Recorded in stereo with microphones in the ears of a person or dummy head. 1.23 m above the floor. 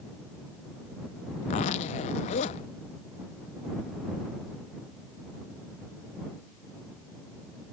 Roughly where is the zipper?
Left.